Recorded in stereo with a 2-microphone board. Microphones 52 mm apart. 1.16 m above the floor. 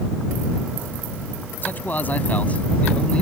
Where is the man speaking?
35° left (ahead or behind); by 3.2 s 20° left (ahead or behind).